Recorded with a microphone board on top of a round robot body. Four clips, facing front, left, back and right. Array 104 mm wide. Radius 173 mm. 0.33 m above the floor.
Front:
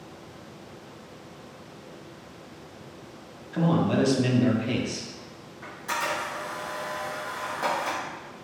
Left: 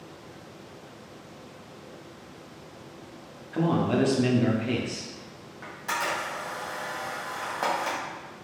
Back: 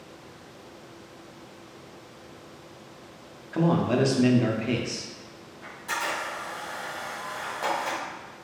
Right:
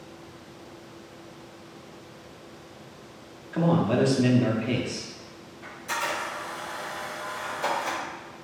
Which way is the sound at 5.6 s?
85° left.